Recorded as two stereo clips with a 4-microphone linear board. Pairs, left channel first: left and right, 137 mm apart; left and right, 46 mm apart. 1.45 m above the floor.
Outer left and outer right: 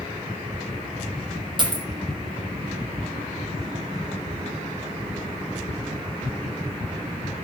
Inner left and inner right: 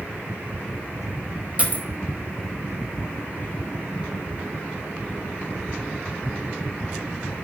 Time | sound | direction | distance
1.6 | a dropped coin | 35° right (ahead or behind) | 0.8 m